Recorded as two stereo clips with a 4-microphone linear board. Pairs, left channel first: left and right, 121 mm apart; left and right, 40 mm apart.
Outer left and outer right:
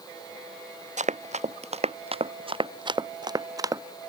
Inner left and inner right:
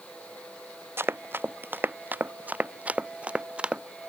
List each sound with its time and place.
1.0 s running footsteps: 80° right; by 3.8 s 25° right (ahead or behind)